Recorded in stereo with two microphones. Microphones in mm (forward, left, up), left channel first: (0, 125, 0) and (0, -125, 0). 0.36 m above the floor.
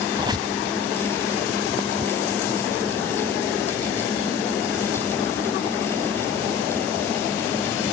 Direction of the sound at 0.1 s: 15° right (ahead or behind).